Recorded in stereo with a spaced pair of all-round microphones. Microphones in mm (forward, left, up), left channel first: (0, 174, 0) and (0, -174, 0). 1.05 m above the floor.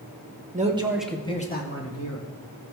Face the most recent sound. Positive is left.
turn(degrees=55)  # may be behind; listen again after turning